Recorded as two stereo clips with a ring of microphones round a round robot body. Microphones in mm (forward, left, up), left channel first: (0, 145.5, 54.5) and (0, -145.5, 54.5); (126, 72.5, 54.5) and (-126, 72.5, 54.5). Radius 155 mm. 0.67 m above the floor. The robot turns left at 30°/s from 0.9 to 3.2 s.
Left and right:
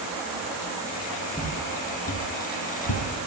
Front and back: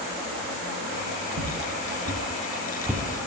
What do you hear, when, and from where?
1.3 s footsteps: 175° left, 3.5 m; by 3.0 s 85° left, 1.6 m